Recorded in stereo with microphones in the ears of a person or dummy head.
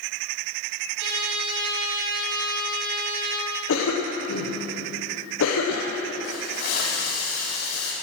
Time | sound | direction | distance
1.0 | a trumpet | 75° right (ahead or behind) | 4.5 m
3.7 | a cough | 75° left (ahead or behind) | 1.4 m
6.2 | a hiss | 85° left | 6 m